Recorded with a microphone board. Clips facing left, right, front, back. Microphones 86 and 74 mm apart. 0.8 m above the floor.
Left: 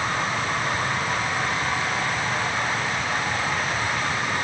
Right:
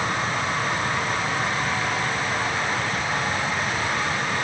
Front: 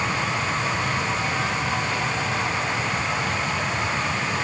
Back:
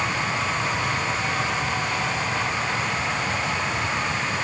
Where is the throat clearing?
No throat clearing in this recording.